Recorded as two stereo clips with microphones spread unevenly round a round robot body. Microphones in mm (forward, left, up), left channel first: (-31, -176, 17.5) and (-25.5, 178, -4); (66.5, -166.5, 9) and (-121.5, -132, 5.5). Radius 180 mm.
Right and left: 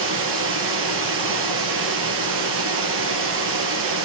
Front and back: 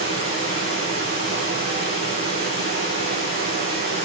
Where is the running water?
30° left, 2.5 m.